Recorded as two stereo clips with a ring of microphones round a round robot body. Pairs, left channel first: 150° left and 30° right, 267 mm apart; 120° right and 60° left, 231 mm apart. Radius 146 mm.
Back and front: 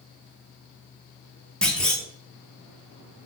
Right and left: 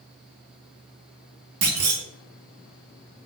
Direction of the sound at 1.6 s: 65° left.